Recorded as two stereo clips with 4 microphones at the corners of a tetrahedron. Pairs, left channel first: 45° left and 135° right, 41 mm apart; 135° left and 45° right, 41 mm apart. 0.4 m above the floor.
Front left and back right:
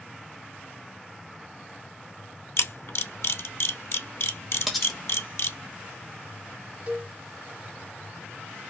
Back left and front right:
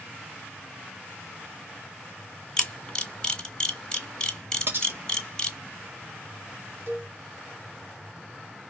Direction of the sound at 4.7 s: 45° right.